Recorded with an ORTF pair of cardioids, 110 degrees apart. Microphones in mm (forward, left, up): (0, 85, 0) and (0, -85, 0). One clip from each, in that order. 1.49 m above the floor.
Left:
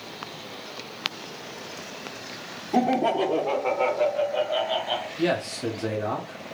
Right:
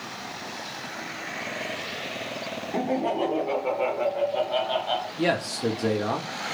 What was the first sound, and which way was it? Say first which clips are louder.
Laughter: left 4 dB; 55° left.